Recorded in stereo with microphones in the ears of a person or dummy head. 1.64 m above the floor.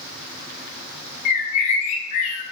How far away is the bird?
About 0.6 m.